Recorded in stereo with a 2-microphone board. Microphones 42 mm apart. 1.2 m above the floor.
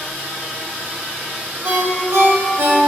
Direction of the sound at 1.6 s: 75° right (ahead or behind).